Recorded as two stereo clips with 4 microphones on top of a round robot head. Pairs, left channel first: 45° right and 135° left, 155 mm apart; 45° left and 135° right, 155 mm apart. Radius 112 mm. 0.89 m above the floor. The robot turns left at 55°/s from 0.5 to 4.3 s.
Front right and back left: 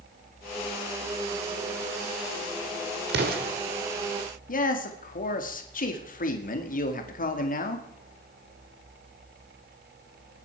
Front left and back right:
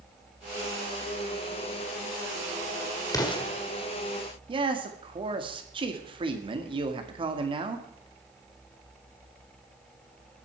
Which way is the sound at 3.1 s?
120° left.